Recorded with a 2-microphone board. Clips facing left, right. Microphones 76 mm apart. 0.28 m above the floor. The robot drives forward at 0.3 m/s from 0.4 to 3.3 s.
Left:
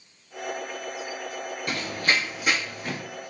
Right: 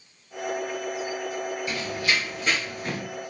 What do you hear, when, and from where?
1.7 s running footsteps: 60° left (ahead or behind), 0.6 m; by 3.0 s centre (ahead or behind), 1.3 m